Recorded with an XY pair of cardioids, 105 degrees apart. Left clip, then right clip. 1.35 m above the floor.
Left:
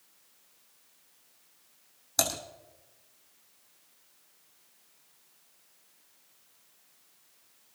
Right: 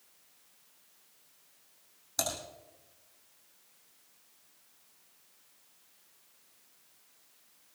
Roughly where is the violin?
No violin in this recording.